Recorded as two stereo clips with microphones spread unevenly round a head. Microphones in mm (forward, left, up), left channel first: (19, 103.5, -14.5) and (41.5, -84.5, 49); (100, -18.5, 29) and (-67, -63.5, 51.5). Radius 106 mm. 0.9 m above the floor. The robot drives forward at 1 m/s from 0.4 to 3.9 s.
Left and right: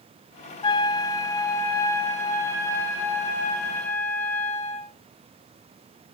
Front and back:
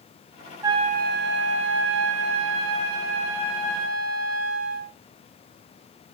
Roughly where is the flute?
Behind.